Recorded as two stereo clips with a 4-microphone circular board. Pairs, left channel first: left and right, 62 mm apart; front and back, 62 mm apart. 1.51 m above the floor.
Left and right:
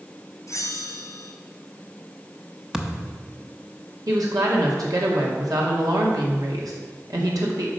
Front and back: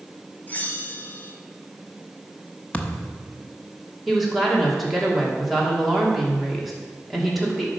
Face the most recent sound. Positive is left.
turn(degrees=-90)